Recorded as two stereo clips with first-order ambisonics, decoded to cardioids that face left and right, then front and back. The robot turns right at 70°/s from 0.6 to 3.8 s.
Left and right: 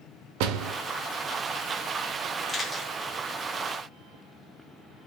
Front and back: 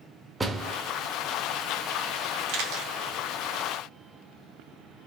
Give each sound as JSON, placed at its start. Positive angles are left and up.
{"t": 0.4, "sound": "a door slam", "azimuth_deg": -100, "distance_m": 0.6}
{"t": 2.5, "sound": "a camera shutter", "azimuth_deg": 165, "distance_m": 1.0}